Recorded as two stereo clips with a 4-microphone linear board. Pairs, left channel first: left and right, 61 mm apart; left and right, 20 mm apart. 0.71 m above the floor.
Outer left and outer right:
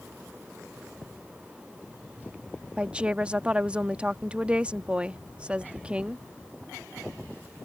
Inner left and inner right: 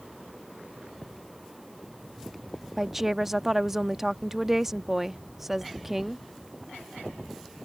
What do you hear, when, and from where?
2.8 s a woman speaking: 20° right (ahead or behind)